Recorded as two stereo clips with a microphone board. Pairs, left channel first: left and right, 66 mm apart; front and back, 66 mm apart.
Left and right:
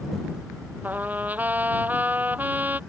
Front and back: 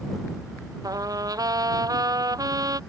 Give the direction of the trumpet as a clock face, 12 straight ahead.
5 o'clock.